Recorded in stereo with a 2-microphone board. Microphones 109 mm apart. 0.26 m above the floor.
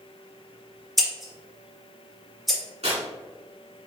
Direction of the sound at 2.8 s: 70° right (ahead or behind).